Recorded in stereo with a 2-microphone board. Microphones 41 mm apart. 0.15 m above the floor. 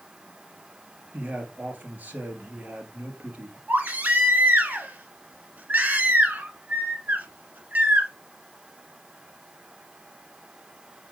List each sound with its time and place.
1.1 s a man speaking: 45° right (ahead or behind), 2.5 m
3.7 s a baby crying: 45° right (ahead or behind), 1.2 m